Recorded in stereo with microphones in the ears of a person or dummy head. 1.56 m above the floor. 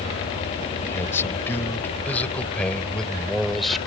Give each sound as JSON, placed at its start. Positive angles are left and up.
{"t": 0.8, "sound": "a man speaking", "side_deg": 15}